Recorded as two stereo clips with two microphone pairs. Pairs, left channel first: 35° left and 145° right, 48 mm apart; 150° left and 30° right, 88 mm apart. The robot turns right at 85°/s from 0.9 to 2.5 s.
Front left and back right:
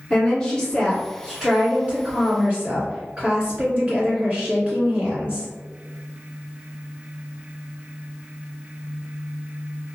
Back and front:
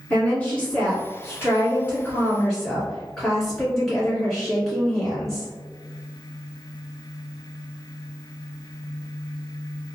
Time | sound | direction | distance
0.1 | a woman speaking | 90° left | 1.7 m